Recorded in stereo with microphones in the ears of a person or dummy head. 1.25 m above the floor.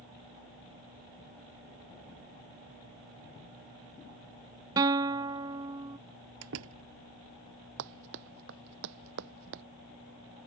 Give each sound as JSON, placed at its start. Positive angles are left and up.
{"t": 4.8, "sound": "a guitar", "side_deg": -20}
{"t": 6.4, "sound": "a door slam", "side_deg": -70}
{"t": 7.8, "sound": "running footsteps", "side_deg": -65}